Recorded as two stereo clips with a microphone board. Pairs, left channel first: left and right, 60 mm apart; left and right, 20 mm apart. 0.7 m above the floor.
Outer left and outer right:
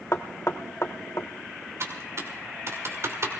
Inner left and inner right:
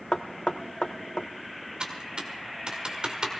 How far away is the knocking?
About 0.7 m.